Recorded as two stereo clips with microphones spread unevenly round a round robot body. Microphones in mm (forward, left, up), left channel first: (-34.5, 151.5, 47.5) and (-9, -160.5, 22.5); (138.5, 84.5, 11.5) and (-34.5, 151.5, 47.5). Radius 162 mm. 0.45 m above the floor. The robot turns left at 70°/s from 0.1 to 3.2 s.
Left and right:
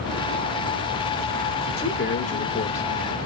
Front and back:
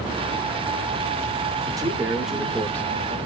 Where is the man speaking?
95° left, 0.9 m; by 3.2 s 10° right, 0.9 m.